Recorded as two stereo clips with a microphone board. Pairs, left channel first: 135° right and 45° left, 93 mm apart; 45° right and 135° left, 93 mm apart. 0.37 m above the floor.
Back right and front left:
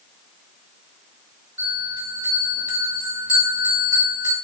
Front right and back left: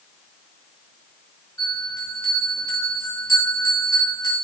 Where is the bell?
10° left, 4 m.